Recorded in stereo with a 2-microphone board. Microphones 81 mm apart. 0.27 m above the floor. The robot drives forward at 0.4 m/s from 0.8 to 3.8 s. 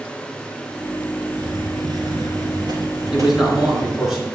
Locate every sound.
1.3 s a hiss: 65° right (ahead or behind), 2 m; by 4.1 s 50° right (ahead or behind), 3 m
3.1 s a man speaking: 5° right (ahead or behind), 3 m